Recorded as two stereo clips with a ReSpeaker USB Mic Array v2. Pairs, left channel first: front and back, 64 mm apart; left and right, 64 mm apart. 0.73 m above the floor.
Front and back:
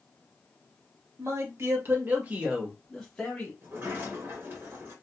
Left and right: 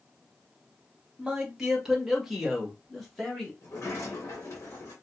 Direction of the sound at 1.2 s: 170° right.